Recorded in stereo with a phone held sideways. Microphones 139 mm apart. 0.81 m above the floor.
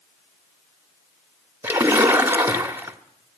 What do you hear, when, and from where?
1.6 s a splash: 15° right (ahead or behind), 1.3 m